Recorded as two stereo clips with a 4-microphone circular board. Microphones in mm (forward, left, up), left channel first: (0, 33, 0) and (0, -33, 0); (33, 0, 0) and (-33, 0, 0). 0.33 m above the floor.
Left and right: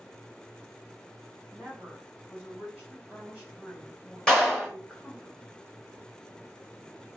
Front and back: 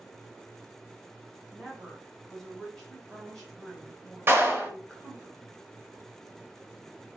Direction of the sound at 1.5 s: 70° right.